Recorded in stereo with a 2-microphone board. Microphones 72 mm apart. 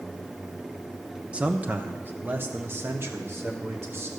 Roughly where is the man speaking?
Centre.